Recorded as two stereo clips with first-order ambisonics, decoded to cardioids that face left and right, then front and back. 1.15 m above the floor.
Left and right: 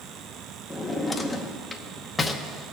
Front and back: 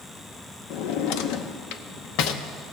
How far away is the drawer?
About 0.8 m.